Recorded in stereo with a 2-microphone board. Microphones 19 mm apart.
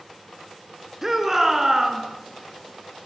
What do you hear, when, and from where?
1.0 s a shout: 15° right (ahead or behind), 4 m